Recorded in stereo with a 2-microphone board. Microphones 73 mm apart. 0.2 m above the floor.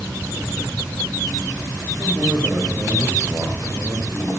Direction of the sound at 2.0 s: 30° right (ahead or behind).